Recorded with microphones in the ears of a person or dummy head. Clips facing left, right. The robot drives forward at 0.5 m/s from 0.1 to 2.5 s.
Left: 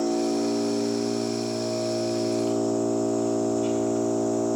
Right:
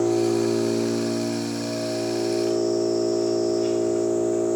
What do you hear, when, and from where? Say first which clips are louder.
0.0 s an engine running: right 3 dB; 40° right (ahead or behind), 2.0 m; by 4.6 s 25° right (ahead or behind), 3 m